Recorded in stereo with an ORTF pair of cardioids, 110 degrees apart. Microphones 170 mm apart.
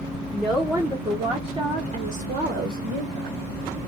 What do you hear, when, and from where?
0.3 s a woman speaking: straight ahead, 1.2 m; by 3.4 s 75° right, 1.5 m